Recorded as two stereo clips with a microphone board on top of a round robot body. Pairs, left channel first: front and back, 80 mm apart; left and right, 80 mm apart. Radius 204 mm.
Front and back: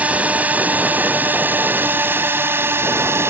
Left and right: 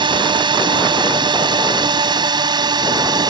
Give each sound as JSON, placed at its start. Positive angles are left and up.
{"t": 0.0, "sound": "a drone", "azimuth_deg": -105}